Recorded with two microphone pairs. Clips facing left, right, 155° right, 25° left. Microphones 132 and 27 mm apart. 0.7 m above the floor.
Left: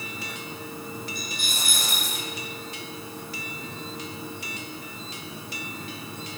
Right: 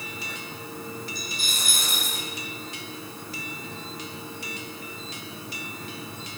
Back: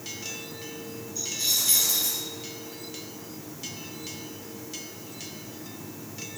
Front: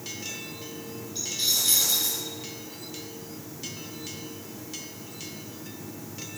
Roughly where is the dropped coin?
Ahead left.